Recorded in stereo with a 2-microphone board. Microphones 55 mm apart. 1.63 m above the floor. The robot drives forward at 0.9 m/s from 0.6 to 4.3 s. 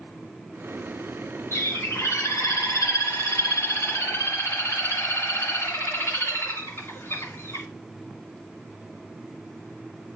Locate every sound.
1.5 s a bird: 55° left (ahead or behind), 2 m